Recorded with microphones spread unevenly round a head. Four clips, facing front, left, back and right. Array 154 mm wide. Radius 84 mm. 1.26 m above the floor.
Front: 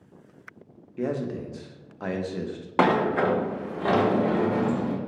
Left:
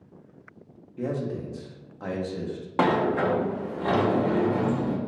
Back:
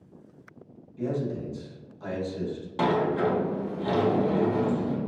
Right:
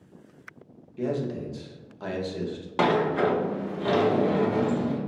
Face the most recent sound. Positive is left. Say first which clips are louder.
# even, front 3 dB
turn(degrees=0)